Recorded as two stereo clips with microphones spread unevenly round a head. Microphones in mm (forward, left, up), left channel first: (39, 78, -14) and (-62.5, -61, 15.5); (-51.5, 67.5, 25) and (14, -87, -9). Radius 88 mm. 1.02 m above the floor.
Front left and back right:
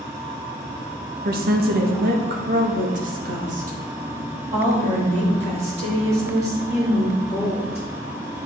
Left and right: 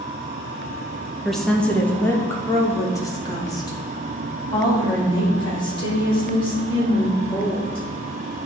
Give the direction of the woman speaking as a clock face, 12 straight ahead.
5 o'clock.